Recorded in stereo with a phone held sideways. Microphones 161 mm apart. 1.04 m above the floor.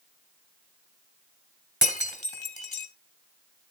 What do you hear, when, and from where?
1.8 s breaking glass: 45° left (ahead or behind), 2.5 m